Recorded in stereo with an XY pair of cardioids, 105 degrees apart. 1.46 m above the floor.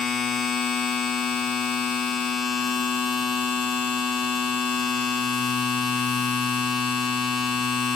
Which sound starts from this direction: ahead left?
A machine running, at 0.0 s.